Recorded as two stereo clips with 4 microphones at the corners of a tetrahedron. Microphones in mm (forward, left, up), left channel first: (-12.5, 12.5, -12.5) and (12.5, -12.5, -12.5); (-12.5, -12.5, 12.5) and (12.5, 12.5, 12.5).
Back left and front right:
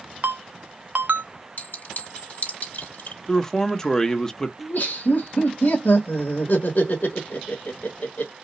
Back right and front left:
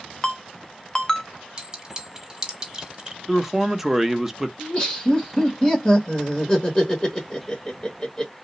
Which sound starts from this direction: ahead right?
A ringtone, at 0.2 s.